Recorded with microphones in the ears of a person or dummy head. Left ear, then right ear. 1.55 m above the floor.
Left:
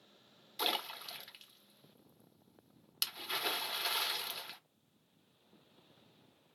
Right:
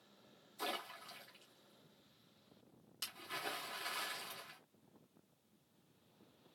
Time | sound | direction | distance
0.6 | a splash | 50° left (ahead or behind) | 0.9 m